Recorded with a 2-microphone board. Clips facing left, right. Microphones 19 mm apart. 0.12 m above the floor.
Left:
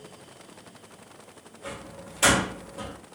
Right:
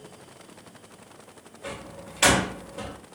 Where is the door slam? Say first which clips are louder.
Right 1 dB; 45° right (ahead or behind), 1.7 m.